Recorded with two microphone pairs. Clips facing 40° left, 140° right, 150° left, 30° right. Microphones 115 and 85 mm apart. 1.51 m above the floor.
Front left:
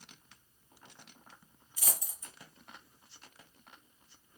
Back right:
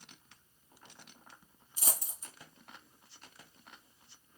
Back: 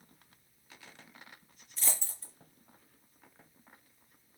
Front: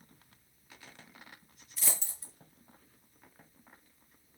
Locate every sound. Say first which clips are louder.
1.8 s a dropped coin: back right 1 dB, even; 120° right, 1.5 m